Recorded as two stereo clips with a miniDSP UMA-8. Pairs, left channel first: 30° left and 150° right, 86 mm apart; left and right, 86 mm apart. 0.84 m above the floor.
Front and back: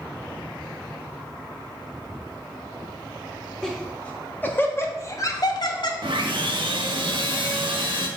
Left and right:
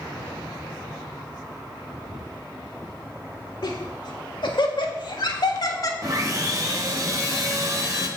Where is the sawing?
135° right, 1.1 m.